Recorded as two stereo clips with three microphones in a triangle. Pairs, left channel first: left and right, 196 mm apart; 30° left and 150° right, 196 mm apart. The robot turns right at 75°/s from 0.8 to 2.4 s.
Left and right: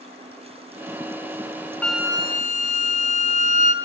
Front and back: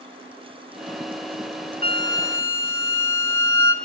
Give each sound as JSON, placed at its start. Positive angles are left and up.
{"t": 1.8, "sound": "a flute", "azimuth_deg": 175, "distance_m": 1.3}